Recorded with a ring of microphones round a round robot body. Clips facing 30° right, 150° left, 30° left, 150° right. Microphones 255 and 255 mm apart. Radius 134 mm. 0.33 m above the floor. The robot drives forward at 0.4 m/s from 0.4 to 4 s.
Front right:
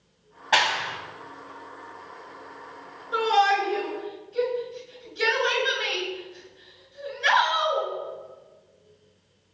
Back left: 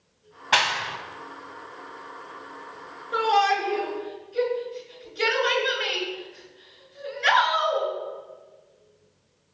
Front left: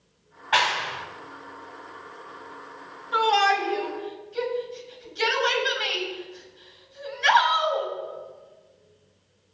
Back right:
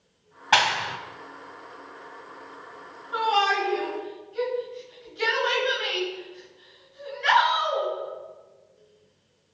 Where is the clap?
130° right, 1.7 m; by 1.0 s 135° right, 1.8 m.